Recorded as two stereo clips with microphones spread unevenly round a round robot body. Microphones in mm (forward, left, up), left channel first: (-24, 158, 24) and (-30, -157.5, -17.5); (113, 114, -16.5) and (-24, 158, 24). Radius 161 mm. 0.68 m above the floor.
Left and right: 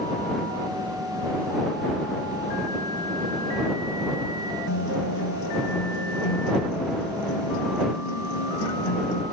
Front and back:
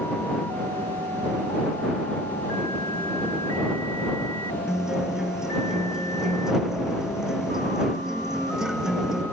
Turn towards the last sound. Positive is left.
turn(degrees=75)